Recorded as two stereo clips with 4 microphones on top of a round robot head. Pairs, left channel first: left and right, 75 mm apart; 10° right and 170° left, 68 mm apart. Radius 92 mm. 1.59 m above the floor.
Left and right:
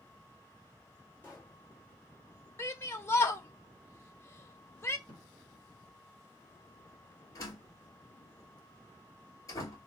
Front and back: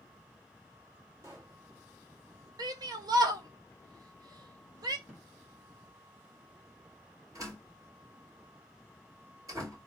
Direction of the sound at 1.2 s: 145° left.